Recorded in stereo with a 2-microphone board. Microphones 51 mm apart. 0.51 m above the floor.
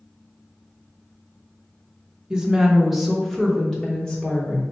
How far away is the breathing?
I don't hear breathing.